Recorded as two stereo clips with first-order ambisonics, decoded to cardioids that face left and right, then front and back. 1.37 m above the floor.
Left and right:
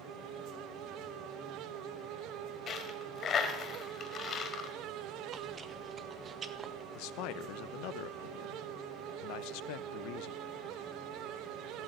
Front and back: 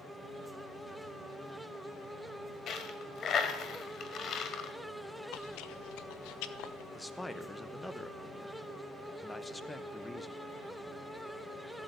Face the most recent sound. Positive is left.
turn(degrees=85)